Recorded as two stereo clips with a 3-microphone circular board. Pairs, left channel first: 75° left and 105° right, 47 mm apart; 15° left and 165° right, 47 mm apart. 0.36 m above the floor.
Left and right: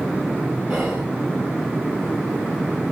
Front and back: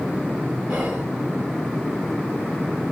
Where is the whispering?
170° left, 1.0 m.